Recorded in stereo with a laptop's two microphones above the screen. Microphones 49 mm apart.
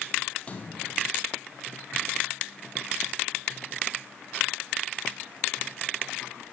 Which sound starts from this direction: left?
A splash, at 0.4 s.